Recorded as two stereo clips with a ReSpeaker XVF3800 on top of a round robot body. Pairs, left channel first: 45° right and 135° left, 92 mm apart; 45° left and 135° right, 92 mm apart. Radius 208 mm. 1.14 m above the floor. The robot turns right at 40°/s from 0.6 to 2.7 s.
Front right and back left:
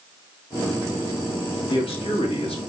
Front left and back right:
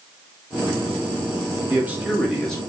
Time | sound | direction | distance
1.7 | a man speaking | 70° right | 2.5 m